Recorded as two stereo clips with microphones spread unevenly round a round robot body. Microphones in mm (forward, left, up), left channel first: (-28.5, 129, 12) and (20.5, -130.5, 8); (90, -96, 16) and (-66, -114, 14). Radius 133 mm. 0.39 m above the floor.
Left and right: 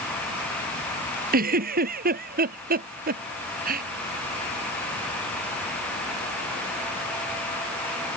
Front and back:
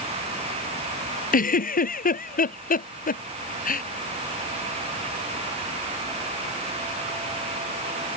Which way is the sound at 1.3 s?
20° right.